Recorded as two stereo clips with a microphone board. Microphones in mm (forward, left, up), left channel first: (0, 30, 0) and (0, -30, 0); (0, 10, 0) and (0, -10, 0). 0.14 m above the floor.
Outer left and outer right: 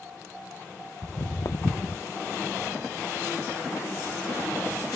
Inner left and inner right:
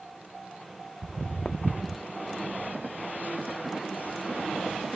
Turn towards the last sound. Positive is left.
turn(degrees=55)  # may be behind; listen again after turning